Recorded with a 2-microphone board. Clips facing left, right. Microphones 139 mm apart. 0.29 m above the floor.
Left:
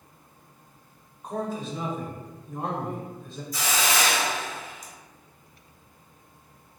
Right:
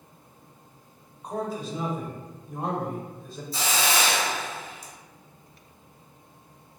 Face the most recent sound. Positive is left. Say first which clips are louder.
# even
turn(degrees=-30)  # may be behind; listen again after turning